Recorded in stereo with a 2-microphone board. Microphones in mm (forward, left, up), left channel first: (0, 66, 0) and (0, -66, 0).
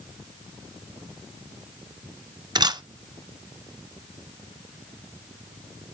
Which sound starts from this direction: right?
A camera shutter, at 2.5 s.